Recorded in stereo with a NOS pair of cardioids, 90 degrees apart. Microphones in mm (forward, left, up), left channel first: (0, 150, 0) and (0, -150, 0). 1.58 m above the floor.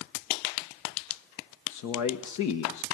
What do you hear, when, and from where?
1.7 s a man speaking: 70° left, 1.5 m